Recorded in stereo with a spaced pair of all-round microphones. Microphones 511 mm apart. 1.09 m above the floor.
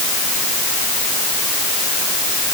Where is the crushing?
I don't hear crushing.